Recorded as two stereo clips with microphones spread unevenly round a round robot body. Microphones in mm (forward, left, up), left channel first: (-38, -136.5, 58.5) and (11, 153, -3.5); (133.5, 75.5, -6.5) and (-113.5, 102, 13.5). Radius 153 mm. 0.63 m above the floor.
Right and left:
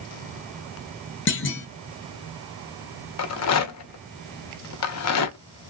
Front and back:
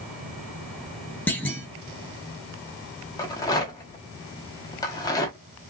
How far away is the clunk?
About 1.0 m.